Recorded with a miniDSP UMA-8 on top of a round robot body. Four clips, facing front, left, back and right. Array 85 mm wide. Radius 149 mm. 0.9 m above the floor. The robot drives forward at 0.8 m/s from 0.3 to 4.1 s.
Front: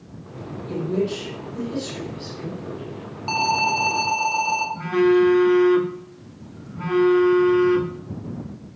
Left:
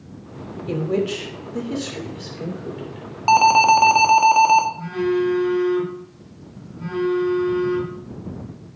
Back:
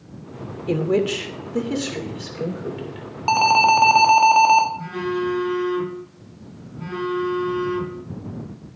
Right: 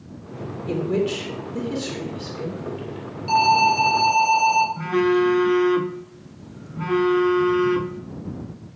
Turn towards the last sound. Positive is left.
turn(degrees=-55)